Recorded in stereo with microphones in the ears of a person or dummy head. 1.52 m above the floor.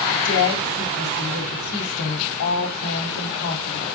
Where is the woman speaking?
85° left, 3.5 m.